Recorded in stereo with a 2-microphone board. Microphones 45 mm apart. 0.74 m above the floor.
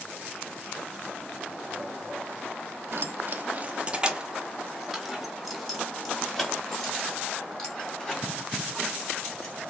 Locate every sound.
2.9 s keys jangling: 60° right (ahead or behind), 0.7 m; by 9.5 s 15° left (ahead or behind), 4 m